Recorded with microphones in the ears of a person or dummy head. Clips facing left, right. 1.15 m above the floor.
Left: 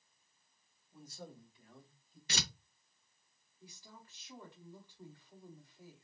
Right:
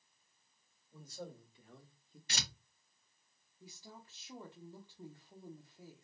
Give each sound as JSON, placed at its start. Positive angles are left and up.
{"t": 0.9, "sound": "a man speaking", "side_deg": -80, "distance_m": 2.5}
{"t": 2.3, "sound": "tearing paper", "side_deg": 60, "distance_m": 0.7}
{"t": 3.6, "sound": "a woman speaking", "side_deg": -20, "distance_m": 0.8}